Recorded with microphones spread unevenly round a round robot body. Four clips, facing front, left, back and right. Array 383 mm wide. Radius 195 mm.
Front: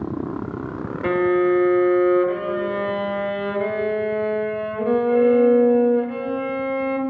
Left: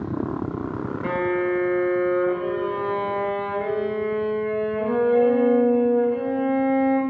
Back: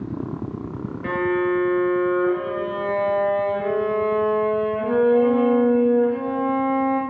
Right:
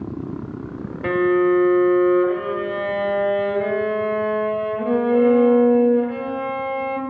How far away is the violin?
About 0.7 m.